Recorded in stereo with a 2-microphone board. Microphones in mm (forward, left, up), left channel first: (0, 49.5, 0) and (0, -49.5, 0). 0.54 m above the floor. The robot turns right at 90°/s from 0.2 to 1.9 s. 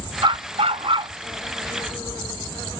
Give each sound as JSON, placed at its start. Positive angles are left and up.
{"t": 0.2, "sound": "a dog barking", "azimuth_deg": -125}